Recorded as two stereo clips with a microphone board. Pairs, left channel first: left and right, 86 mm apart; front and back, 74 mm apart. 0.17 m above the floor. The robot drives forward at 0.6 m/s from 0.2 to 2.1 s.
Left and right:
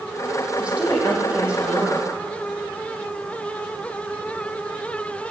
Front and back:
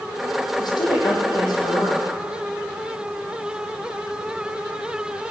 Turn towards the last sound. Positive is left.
turn(degrees=-15)